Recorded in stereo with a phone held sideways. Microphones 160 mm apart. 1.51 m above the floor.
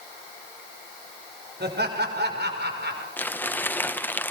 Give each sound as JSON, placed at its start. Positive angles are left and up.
{"t": 1.6, "sound": "laughter", "side_deg": -80, "distance_m": 6.0}
{"t": 3.2, "sound": "crumpling", "side_deg": 10, "distance_m": 1.1}